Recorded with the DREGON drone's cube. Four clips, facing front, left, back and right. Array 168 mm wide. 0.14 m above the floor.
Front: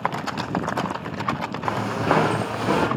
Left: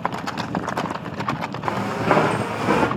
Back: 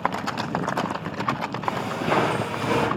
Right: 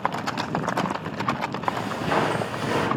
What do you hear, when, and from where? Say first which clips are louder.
1.6 s footsteps: left 7 dB, front 3 dB; 45° left, 2 m; by 2.9 s 60° left, 2.5 m